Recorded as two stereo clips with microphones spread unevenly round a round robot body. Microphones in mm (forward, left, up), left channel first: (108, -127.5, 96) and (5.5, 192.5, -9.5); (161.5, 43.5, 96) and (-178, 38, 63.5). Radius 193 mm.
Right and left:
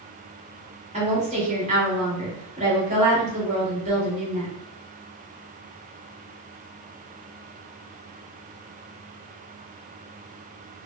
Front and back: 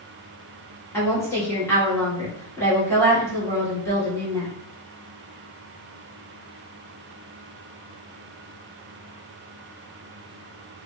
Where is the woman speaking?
85° left, 1.6 m.